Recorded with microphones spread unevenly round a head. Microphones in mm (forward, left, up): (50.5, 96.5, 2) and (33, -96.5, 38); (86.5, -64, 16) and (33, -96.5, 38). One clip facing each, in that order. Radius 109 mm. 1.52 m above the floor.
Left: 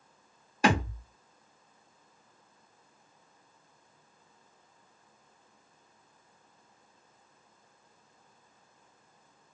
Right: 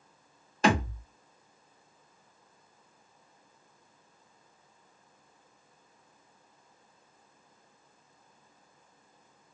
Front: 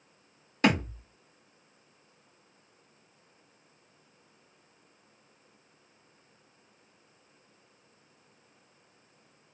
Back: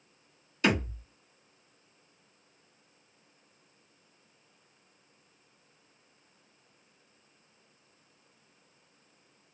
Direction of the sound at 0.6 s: Straight ahead.